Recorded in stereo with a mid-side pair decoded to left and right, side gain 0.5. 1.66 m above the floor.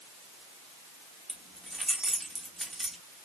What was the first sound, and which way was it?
Keys jangling, 5° right.